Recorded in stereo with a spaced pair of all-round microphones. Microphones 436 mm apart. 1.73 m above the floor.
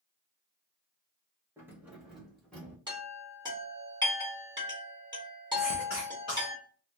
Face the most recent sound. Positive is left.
turn(degrees=80)